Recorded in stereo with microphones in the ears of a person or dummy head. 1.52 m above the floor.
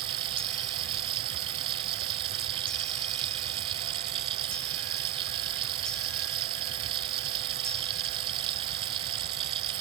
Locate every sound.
0.0 s running water: 25° right (ahead or behind)